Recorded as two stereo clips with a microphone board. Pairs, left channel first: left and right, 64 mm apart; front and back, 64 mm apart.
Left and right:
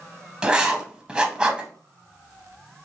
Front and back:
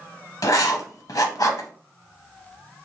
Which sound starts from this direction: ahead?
Writing, at 0.4 s.